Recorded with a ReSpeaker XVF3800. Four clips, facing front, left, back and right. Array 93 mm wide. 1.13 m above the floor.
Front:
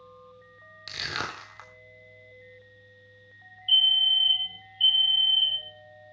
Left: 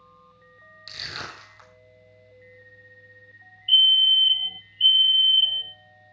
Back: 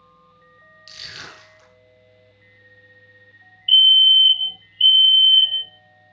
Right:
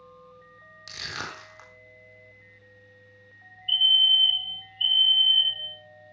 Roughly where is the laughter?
I don't hear laughter.